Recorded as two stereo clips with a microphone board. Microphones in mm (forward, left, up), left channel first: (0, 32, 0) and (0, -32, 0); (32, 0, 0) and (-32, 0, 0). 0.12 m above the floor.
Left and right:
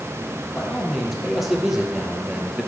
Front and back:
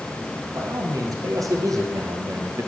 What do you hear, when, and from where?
0.6 s a man speaking: 175° right, 4 m; by 2.7 s 170° right, 2 m